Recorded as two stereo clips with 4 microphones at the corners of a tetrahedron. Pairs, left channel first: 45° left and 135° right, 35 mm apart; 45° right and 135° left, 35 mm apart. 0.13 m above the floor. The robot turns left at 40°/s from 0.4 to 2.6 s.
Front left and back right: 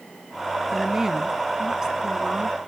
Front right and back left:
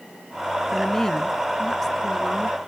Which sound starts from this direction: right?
A woman speaking, at 0.7 s.